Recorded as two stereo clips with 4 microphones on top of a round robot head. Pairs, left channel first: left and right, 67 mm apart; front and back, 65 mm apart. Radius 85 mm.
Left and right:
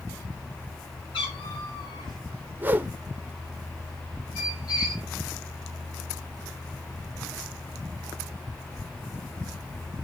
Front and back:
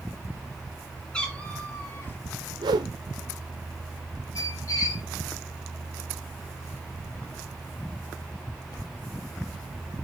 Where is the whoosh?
155° right, 0.7 m.